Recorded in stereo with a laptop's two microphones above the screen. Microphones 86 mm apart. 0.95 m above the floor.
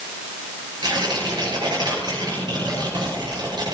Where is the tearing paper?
55° right (ahead or behind), 6 m.